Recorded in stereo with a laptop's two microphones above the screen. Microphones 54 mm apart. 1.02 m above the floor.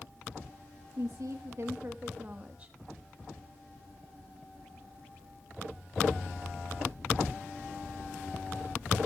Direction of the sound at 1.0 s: 75° right (ahead or behind).